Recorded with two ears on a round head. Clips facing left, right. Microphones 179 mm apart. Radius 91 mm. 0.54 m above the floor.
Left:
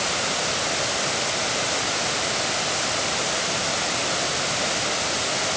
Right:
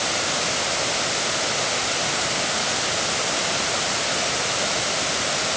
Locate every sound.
Only background noise.